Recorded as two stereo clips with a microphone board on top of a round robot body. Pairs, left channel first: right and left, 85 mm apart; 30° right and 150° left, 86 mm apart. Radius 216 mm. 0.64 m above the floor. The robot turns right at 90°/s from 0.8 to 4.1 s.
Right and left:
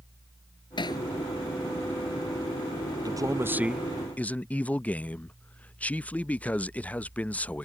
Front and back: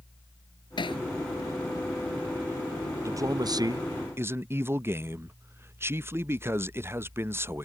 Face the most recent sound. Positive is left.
turn(degrees=-160)